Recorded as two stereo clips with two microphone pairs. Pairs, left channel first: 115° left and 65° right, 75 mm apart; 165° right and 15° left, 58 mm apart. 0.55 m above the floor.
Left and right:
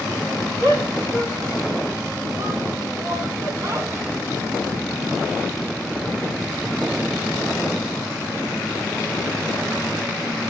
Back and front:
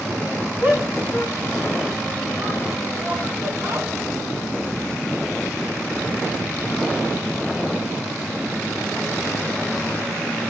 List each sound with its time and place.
0.6 s a shout: 50° right, 4 m; by 3.9 s 20° right, 4.5 m